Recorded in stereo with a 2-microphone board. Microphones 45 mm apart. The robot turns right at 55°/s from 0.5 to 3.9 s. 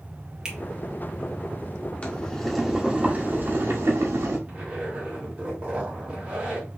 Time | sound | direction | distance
0.5 | a finger snap | 15° right (ahead or behind) | 1.4 m
2.0 | boiling | 150° left | 1.5 m
4.5 | a zipper | 25° right (ahead or behind) | 2.5 m